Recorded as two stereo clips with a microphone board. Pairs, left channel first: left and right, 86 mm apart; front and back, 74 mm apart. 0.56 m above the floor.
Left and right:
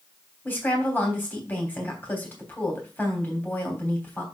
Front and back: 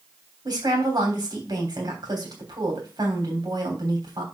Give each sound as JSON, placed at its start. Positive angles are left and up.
{"t": 0.5, "sound": "a woman speaking", "azimuth_deg": 160, "distance_m": 3.0}